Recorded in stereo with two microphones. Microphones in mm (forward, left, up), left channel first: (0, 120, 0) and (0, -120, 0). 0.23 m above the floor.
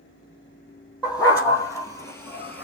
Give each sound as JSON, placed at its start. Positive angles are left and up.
{"t": 1.0, "sound": "a dog barking", "side_deg": 15, "distance_m": 2.5}